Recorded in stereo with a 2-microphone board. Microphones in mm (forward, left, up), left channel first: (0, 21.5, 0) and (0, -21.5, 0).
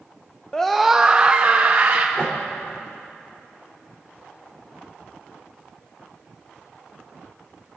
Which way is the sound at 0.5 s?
15° left (ahead or behind).